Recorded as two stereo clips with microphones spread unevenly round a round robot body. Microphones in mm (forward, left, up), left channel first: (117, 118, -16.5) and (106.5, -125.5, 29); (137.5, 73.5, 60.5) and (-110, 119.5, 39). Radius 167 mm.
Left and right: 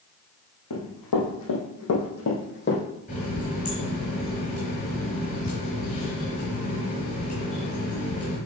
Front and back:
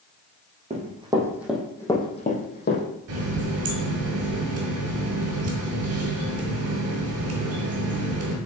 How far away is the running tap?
About 1.5 m.